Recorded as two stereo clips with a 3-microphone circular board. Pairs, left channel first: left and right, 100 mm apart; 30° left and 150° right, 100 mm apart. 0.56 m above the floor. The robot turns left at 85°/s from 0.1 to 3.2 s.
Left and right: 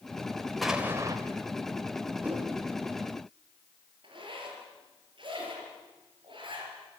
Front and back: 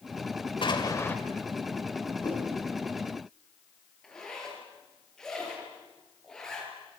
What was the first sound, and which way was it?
An explosion, straight ahead.